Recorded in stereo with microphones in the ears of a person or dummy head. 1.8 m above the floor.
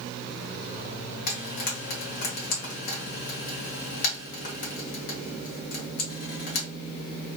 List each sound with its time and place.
1.3 s frying: 45° left (ahead or behind), 1.2 m